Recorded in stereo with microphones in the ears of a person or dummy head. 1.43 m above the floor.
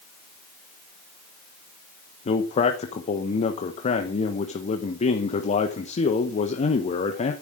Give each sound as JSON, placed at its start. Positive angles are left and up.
{"t": 2.2, "sound": "a man speaking", "side_deg": 35, "distance_m": 1.2}